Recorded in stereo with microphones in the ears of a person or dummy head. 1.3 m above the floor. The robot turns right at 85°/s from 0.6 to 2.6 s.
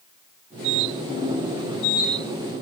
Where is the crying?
I don't hear crying.